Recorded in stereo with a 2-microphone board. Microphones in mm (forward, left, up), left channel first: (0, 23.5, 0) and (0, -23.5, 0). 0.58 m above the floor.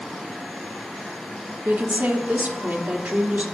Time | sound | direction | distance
1.6 | a woman speaking | 40° right (ahead or behind) | 1.2 m